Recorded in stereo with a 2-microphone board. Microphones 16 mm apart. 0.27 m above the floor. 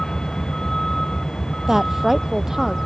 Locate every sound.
0.0 s a vehicle: 40° left (ahead or behind)
1.7 s a woman speaking: 25° right (ahead or behind)